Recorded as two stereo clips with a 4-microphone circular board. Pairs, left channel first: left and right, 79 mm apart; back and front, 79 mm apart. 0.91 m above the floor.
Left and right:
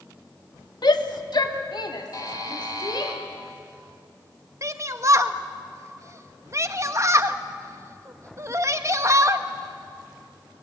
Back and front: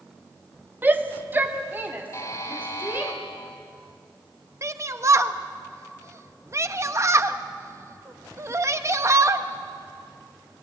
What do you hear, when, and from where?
0.8 s a shout: 65° left, 1.4 m
2.1 s a buzzer: 130° left, 2.5 m
4.6 s a shout: 45° right, 1.2 m